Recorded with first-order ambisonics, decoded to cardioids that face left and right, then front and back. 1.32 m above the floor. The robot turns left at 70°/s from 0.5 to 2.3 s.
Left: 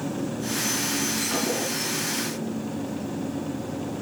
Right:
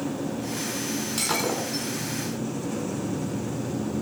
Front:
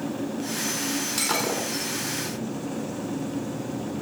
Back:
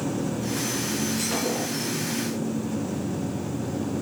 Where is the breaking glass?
40° right, 4.5 m; by 1.9 s 90° right, 4.5 m.